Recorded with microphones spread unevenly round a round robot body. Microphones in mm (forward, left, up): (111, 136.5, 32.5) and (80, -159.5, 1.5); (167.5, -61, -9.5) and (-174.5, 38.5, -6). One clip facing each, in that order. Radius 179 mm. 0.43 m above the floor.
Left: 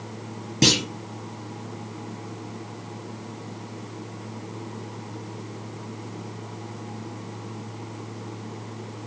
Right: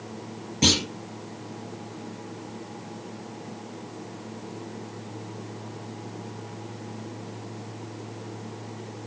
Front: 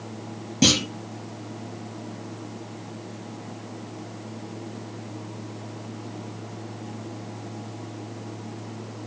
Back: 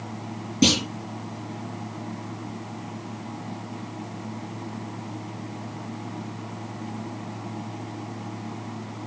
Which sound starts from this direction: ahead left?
A clunk, at 0.6 s.